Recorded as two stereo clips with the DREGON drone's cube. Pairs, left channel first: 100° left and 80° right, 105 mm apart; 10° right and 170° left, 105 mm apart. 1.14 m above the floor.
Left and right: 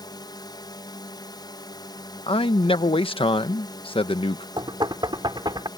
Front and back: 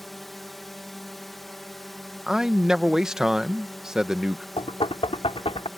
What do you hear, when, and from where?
0.0 s a drone: 80° left
2.3 s a man speaking: 85° left
4.6 s knocking: 35° right